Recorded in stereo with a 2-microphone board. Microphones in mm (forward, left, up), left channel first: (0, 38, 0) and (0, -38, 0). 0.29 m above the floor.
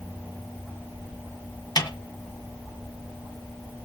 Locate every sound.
1.8 s a snare drum: 60° left (ahead or behind), 1.9 m